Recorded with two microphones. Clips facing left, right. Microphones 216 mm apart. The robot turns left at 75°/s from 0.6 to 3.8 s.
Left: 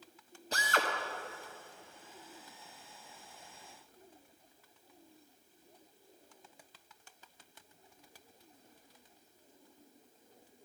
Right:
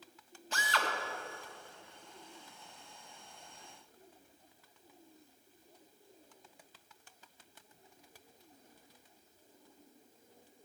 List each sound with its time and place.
0.5 s a drill: 35° left (ahead or behind), 1.1 m; by 0.9 s 55° left (ahead or behind), 1.1 m